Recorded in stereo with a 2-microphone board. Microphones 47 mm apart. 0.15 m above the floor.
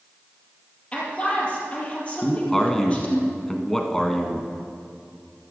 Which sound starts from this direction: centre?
A man speaking, at 2.2 s.